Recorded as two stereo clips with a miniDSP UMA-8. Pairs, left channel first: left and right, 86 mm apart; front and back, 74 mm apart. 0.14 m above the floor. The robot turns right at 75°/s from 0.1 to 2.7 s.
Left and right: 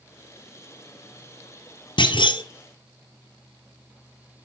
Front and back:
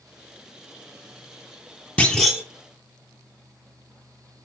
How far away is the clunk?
About 1.4 m.